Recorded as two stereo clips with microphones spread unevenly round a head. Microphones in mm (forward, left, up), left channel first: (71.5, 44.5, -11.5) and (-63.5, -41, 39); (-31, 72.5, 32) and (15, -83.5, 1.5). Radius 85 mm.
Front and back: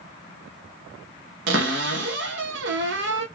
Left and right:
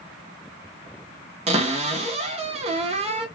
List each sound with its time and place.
1.5 s a cupboard door: 130° right, 0.8 m